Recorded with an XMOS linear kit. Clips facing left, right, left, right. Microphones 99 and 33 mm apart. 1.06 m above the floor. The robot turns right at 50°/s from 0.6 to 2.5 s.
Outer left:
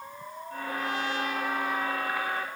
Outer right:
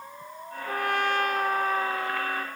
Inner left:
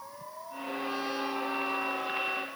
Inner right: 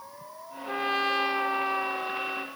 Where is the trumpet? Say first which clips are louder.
Outer right 5 dB, inner right 7 dB; 100° right, 1.0 m; by 2.5 s 10° right, 1.0 m.